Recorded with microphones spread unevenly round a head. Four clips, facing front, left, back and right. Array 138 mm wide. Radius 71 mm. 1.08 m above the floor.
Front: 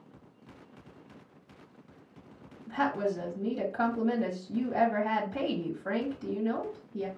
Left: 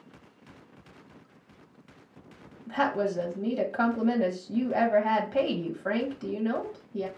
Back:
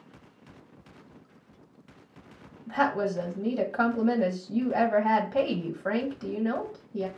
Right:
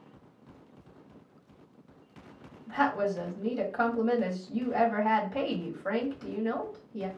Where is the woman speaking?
165° left, 1.4 m.